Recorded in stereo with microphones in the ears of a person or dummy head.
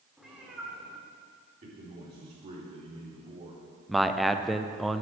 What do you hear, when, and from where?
0.2 s a cat meowing: centre (ahead or behind), 1.7 m
1.6 s a man speaking: 30° right (ahead or behind), 4 m
3.9 s a man speaking: centre (ahead or behind), 0.6 m